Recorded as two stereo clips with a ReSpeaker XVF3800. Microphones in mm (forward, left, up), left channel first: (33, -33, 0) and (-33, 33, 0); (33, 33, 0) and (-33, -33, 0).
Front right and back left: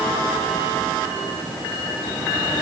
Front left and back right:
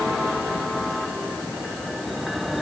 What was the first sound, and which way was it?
Only background noise.